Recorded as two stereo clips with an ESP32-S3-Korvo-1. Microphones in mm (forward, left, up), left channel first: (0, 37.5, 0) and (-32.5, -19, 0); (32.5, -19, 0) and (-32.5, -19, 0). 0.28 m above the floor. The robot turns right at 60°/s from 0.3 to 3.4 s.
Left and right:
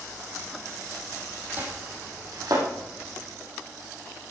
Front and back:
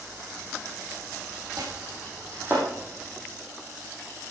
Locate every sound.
1.6 s chopping: 175° left, 5.5 m; by 2.7 s 115° right, 5.5 m